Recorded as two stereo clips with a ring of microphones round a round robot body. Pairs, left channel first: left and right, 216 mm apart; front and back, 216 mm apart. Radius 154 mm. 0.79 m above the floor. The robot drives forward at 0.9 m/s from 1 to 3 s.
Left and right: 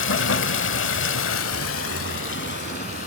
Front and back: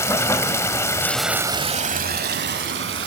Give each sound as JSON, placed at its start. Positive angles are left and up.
{"t": 0.0, "sound": "running water", "azimuth_deg": 75, "distance_m": 0.9}